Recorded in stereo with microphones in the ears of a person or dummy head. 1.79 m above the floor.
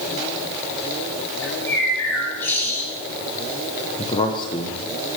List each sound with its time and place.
1.4 s a bird: 10° left (ahead or behind), 3.5 m
4.0 s a man speaking: 25° left (ahead or behind), 1.2 m